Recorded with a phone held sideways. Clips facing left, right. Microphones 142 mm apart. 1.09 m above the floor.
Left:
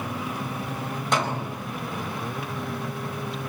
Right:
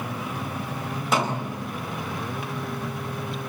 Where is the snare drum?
5° right (ahead or behind), 5 m.